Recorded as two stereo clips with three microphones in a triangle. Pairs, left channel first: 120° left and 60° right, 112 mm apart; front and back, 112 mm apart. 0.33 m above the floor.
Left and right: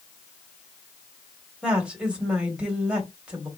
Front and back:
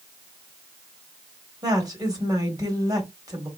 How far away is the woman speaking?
About 1.6 m.